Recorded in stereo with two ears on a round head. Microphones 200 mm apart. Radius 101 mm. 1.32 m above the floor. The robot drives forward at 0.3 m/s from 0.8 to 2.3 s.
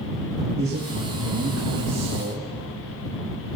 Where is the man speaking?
60° right (ahead or behind), 1.5 m; by 2.5 s 50° right (ahead or behind), 1.8 m.